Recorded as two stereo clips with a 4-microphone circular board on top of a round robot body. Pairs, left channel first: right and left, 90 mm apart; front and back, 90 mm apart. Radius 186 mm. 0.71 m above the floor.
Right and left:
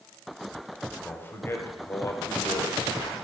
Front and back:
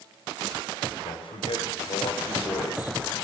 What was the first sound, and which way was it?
A man speaking, 20° right.